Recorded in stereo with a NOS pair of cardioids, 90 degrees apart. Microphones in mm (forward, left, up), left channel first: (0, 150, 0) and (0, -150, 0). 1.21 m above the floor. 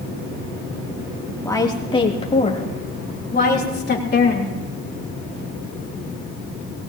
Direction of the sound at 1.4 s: 10° left.